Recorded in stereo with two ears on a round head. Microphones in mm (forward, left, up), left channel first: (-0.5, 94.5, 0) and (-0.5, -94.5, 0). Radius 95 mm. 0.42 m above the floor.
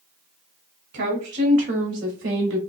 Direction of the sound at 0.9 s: 55° right (ahead or behind).